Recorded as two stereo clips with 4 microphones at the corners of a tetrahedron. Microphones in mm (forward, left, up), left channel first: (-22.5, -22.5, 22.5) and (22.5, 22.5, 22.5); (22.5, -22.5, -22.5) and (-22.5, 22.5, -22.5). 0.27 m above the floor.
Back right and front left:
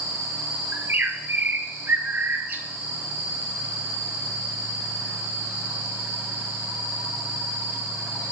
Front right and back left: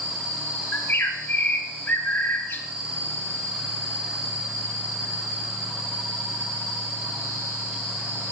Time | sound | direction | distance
0.7 | a bird | straight ahead | 0.6 m